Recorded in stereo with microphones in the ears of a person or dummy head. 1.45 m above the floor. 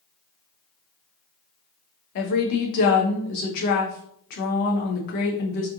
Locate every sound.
2.1 s a woman speaking: 55° left (ahead or behind), 1.0 m